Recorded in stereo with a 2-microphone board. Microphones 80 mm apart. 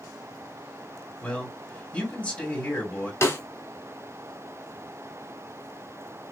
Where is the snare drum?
35° left (ahead or behind), 1.2 m.